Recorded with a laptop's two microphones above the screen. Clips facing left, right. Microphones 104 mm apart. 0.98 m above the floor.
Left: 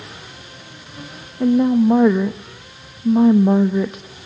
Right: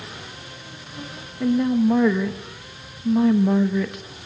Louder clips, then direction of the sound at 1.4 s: Left 5 dB; 25° left (ahead or behind).